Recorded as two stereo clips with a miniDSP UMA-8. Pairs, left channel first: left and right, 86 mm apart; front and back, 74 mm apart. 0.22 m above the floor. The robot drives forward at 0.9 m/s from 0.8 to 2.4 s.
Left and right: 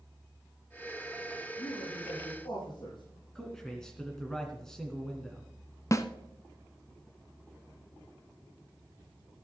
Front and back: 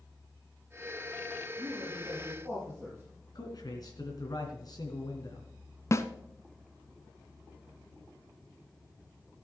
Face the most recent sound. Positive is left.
turn(degrees=45)